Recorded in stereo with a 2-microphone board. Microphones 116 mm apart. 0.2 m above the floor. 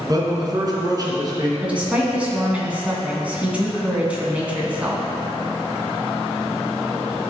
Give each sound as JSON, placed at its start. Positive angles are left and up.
{"t": 0.1, "sound": "a man speaking", "side_deg": -35, "distance_m": 2.0}
{"t": 1.6, "sound": "a woman speaking", "side_deg": -10, "distance_m": 1.8}